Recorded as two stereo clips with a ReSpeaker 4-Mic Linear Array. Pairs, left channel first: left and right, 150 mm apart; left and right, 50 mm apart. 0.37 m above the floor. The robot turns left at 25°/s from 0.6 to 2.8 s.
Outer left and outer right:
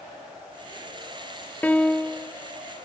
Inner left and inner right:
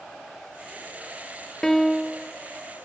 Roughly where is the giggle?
I don't hear a giggle.